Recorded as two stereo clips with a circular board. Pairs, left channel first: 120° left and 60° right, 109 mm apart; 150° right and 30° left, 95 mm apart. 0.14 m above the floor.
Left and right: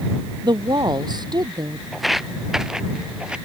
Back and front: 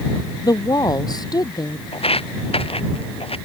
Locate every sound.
0.4 s a woman speaking: 105° right; by 1.8 s 110° right
1.9 s footsteps: 150° right; by 3.4 s 140° right